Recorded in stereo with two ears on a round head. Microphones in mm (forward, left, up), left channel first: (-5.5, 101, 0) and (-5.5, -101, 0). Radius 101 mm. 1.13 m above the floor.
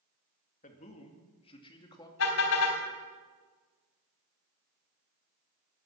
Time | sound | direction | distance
0.6 | a man speaking | 35° left (ahead or behind) | 2.5 m
2.2 | a car horn | 65° left (ahead or behind) | 3.5 m